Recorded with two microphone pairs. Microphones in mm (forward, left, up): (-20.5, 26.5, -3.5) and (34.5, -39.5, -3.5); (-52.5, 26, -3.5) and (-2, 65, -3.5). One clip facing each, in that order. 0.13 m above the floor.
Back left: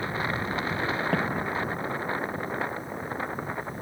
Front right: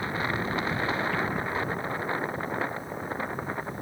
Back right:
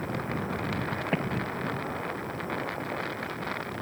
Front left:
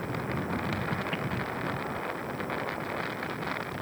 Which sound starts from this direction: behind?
An explosion, at 1.1 s.